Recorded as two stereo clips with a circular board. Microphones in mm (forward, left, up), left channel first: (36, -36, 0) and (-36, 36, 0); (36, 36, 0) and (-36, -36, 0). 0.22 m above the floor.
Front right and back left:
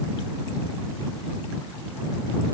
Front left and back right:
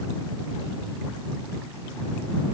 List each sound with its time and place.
Only background noise.